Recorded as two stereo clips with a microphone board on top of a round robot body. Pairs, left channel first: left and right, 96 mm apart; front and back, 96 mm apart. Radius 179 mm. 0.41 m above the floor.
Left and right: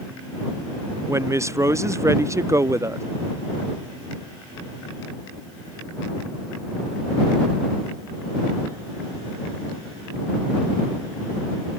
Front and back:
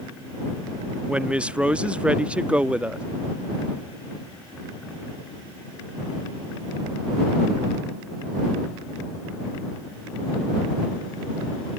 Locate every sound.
1.1 s a woman speaking: 110° right